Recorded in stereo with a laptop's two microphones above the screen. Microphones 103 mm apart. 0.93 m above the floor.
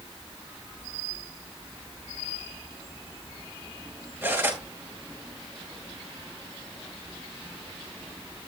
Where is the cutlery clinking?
20° right (ahead or behind), 8 m.